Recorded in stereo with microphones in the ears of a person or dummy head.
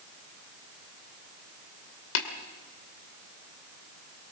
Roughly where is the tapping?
Left.